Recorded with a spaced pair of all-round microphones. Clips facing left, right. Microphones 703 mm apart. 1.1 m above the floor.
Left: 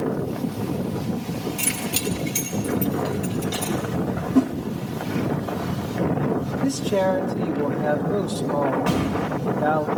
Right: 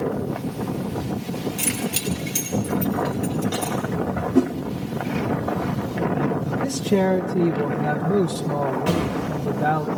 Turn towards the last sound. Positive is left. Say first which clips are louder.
# even
turn(degrees=0)  # may be behind; listen again after turning